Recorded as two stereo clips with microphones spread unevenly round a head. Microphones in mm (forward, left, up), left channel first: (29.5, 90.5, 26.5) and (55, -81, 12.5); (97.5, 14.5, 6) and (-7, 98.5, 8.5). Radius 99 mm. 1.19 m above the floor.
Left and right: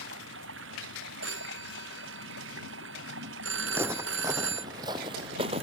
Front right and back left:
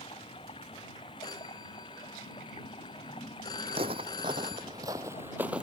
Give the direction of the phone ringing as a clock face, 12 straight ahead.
4 o'clock.